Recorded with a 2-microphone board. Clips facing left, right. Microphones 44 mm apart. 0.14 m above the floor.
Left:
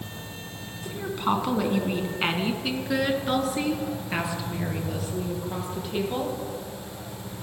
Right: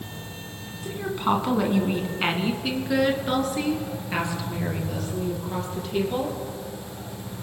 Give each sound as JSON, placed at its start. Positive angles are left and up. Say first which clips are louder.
{"t": 0.8, "sound": "a woman speaking", "louder": "right 2 dB", "side_deg": -5, "distance_m": 1.6}